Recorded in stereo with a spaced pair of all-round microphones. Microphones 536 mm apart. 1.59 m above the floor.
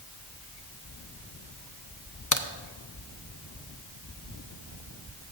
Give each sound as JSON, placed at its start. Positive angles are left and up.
{"t": 2.3, "sound": "a crack", "side_deg": 35, "distance_m": 0.6}